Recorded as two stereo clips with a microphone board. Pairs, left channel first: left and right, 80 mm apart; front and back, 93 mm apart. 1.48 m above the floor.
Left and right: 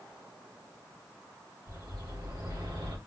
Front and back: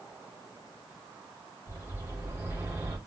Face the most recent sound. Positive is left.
turn(degrees=-120)